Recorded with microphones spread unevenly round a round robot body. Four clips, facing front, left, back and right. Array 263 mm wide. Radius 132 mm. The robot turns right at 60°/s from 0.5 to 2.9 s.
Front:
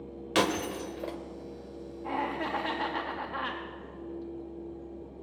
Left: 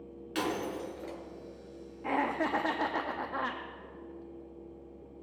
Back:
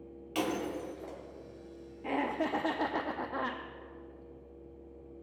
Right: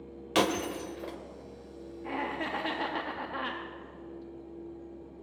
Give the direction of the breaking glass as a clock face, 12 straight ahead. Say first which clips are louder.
Right 5 dB, front 5 dB; 1 o'clock.